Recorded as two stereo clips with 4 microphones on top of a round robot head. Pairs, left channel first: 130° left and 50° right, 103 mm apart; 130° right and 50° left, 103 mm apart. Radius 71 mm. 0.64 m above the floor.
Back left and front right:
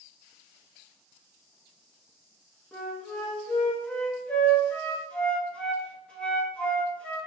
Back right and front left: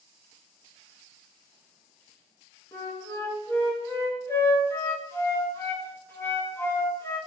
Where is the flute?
165° right, 1.1 m.